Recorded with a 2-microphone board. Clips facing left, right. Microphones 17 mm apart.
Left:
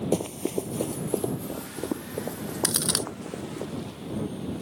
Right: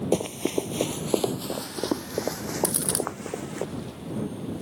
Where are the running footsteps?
15° right (ahead or behind); by 3.6 s 65° right (ahead or behind).